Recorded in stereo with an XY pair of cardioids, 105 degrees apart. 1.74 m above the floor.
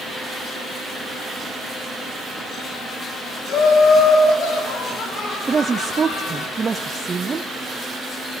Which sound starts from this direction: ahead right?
A woman speaking, at 5.5 s.